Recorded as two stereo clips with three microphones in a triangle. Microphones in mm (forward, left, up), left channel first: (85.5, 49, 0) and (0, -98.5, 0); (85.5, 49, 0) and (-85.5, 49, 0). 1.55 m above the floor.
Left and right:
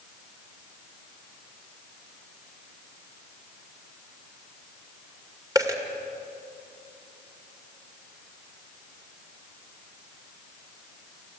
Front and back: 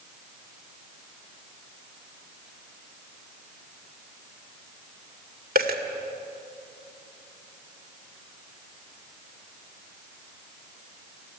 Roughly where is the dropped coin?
Behind.